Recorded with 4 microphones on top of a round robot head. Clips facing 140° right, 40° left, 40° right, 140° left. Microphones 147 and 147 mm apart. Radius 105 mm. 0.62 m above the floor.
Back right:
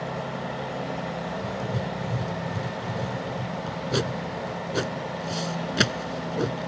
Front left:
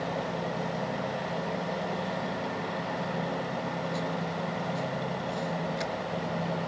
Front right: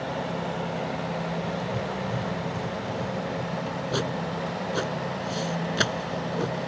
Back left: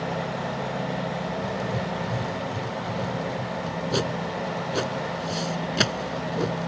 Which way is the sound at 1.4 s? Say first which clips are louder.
Back right 2 dB, back left 1 dB; 140° right.